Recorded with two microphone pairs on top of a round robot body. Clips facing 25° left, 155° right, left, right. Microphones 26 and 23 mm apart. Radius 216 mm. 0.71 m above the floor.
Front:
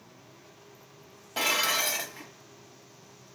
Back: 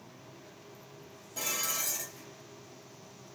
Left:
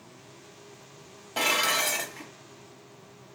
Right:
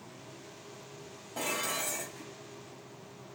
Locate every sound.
1.4 s dishes clattering: 60° left, 0.5 m